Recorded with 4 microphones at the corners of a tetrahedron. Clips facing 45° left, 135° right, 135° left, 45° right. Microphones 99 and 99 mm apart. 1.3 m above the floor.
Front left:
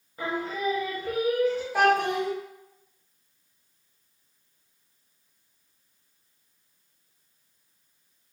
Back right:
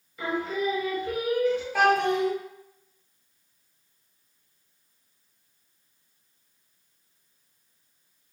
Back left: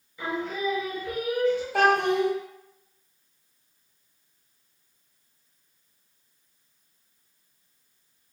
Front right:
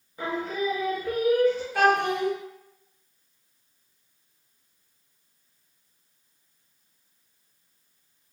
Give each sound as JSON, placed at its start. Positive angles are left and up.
{"t": 0.2, "sound": "singing", "azimuth_deg": 0, "distance_m": 0.7}
{"t": 1.7, "sound": "a child speaking", "azimuth_deg": 125, "distance_m": 1.4}